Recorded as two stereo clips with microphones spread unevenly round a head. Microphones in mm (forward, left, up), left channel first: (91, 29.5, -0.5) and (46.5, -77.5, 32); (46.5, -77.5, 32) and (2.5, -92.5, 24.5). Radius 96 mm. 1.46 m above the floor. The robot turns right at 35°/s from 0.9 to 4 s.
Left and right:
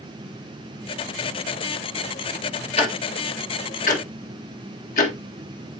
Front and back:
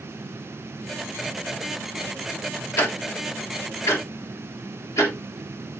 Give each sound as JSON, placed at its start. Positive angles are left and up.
{"t": 2.8, "sound": "ticking", "azimuth_deg": 30, "distance_m": 1.8}